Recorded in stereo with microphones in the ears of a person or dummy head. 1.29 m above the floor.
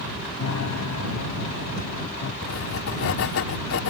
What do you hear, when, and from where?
0.4 s a piano: 75° left (ahead or behind)
2.4 s writing: 55° left (ahead or behind)